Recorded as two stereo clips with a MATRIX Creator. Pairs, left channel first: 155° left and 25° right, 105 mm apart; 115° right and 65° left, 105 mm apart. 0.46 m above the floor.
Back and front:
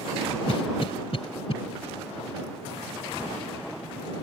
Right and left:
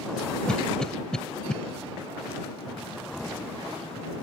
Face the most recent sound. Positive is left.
turn(degrees=165)